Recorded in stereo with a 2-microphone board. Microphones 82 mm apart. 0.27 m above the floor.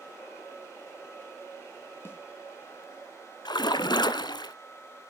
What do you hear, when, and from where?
2.0 s a snare drum: 30° left (ahead or behind), 3.5 m
3.5 s a splash: 70° left (ahead or behind), 0.8 m